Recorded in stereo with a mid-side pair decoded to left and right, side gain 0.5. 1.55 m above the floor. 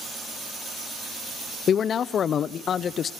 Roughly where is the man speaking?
Ahead left.